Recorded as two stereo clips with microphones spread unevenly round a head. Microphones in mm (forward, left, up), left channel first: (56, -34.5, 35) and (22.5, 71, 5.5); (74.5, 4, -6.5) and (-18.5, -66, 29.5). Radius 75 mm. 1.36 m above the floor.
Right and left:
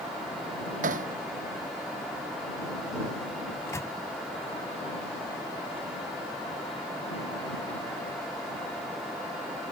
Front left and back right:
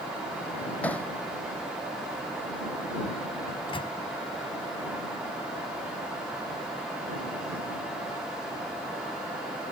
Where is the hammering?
120° left.